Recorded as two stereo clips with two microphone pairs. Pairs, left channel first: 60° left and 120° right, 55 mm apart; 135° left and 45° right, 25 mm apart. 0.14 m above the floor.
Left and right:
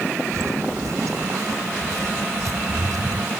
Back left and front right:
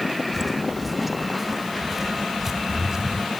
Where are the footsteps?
140° right; by 3.3 s 115° right.